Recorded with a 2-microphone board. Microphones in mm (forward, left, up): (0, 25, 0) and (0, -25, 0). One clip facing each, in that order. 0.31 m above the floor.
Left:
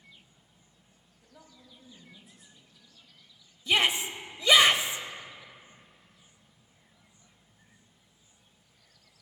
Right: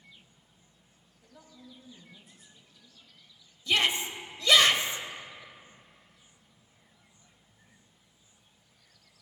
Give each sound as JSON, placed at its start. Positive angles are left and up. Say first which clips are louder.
{"t": 1.2, "sound": "a woman speaking", "louder": "right 3 dB", "side_deg": 0, "distance_m": 1.6}
{"t": 3.7, "sound": "a shout", "louder": "left 1 dB", "side_deg": 15, "distance_m": 1.1}